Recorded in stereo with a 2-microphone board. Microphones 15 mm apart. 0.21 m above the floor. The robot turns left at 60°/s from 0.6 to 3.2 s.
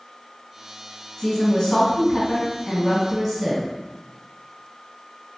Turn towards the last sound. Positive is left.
turn(degrees=-10)